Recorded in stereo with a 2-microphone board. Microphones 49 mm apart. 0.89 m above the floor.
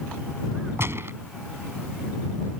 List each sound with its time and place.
0.8 s a gunshot: 60° right (ahead or behind)